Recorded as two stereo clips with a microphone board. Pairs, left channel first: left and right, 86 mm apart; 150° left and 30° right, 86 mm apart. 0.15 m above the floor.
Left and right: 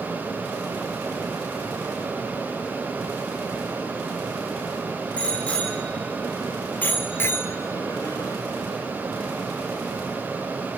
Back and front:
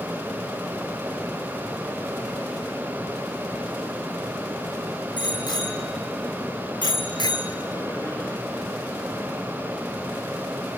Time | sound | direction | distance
5.2 | a bicycle bell | 165° left | 4.5 m